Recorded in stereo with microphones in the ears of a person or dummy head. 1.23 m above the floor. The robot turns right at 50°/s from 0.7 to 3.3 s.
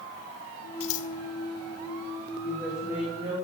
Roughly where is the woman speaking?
Behind.